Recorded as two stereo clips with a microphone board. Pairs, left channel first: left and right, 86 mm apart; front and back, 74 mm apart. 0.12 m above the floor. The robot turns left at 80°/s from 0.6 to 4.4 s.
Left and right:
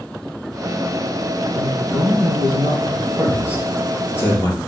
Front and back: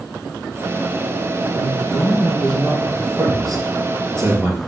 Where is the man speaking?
5° right, 3 m; by 4.6 s 130° left, 3 m.